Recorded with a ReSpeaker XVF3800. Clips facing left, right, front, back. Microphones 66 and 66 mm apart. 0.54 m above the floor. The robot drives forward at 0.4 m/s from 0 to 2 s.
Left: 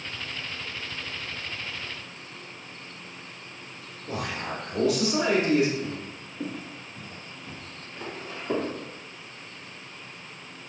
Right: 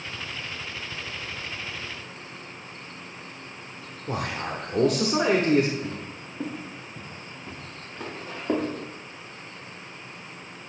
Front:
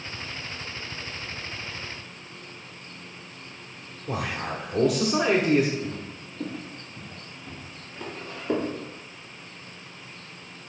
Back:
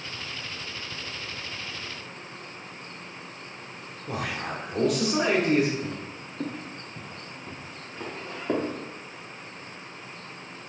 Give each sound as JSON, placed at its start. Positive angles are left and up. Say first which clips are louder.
{"t": 4.1, "sound": "a man speaking", "louder": "right 2 dB, front 2 dB", "azimuth_deg": -85, "distance_m": 1.1}
{"t": 5.8, "sound": "footsteps", "louder": "even, even", "azimuth_deg": -160, "distance_m": 2.5}